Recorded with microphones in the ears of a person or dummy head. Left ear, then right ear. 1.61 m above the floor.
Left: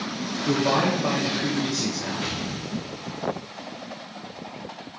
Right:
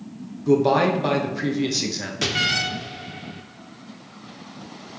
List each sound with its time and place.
0.5 s a man speaking: 30° right (ahead or behind), 0.9 m
2.2 s an explosion: 80° right, 0.8 m